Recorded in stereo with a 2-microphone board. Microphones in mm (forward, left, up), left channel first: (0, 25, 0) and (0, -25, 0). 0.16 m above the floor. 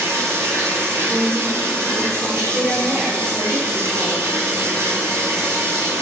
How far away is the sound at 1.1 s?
About 1.1 m.